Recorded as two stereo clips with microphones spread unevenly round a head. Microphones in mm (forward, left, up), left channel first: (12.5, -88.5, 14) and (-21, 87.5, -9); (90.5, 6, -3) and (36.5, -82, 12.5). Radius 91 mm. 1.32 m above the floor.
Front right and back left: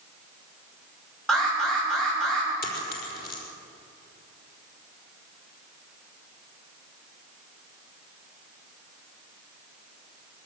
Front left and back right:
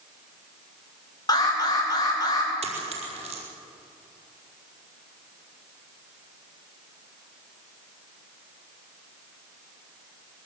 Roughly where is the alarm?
Ahead.